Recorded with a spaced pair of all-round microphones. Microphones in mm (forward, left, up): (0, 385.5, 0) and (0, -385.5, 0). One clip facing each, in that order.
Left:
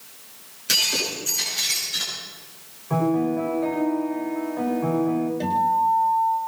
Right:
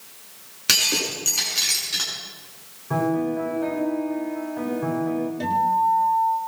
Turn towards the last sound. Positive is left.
turn(degrees=-40)  # may be behind; listen again after turning